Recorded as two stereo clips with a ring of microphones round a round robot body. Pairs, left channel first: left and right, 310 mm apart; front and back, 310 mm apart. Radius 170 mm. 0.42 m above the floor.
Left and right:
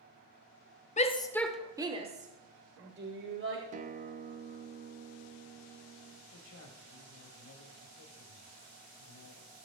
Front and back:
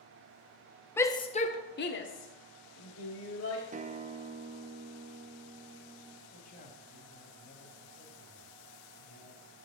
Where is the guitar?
135° right, 0.7 m.